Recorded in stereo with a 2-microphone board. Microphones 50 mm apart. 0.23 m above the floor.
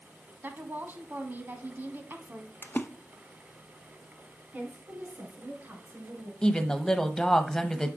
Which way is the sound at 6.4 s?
15° left (ahead or behind).